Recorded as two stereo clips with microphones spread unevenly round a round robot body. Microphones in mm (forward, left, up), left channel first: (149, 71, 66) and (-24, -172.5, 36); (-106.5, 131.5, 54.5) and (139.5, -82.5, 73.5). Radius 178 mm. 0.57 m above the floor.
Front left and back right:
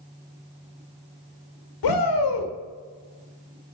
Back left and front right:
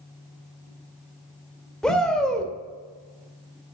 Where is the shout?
50° left, 1.9 m.